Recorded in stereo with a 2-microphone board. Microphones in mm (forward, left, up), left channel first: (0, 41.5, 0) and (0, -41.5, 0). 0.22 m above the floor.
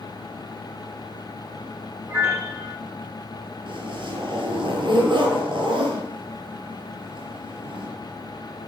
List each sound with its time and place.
2.1 s a piano: 25° right (ahead or behind), 6 m
3.7 s a zipper: 75° right (ahead or behind), 5 m